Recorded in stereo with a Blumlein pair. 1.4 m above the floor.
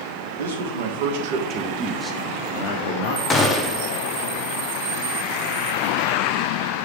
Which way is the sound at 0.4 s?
65° right.